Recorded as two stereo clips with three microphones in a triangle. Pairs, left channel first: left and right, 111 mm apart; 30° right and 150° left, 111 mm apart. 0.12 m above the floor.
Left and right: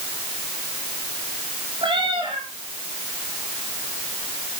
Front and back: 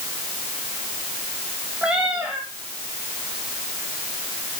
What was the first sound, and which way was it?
A cat meowing, 130° right.